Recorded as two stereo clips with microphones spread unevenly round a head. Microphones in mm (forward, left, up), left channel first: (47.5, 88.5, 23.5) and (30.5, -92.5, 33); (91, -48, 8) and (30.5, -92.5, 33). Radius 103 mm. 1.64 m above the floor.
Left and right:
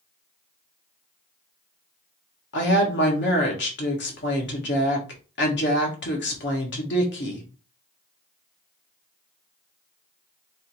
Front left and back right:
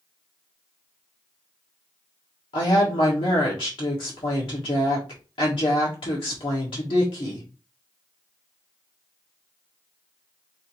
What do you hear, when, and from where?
2.5 s a woman speaking: 65° left, 1.6 m